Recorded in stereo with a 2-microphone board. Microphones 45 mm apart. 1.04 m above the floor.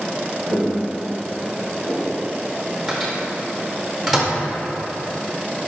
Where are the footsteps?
50° left (ahead or behind), 1.8 m; by 2.3 s 15° left (ahead or behind), 1.2 m.